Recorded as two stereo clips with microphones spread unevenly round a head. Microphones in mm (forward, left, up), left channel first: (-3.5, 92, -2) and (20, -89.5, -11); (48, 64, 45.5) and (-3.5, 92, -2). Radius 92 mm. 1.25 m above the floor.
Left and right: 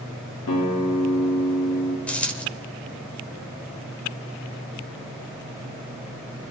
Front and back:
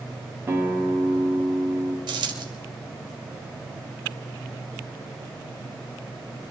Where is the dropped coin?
Straight behind, 2 m.